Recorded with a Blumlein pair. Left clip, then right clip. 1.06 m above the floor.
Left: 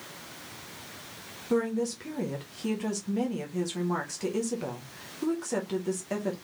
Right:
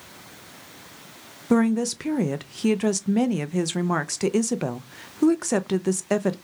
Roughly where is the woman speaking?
Ahead right.